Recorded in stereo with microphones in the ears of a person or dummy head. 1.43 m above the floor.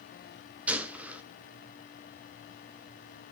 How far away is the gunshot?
About 1.1 m.